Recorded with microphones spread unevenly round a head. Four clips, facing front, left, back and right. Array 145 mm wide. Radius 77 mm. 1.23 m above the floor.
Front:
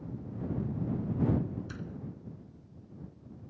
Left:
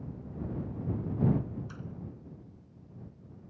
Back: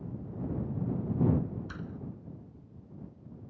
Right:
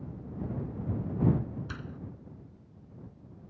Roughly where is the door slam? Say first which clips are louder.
Right 2 dB, even; right.